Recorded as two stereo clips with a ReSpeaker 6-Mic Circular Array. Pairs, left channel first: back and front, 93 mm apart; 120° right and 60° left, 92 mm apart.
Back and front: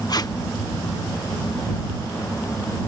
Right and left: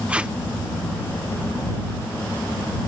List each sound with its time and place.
0.1 s tape being pulled: 135° left